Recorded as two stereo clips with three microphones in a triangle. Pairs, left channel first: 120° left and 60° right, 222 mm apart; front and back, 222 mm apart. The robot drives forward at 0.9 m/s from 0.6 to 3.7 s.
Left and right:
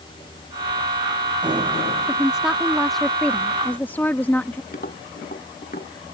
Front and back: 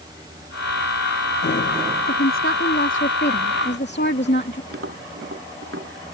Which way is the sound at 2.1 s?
25° left.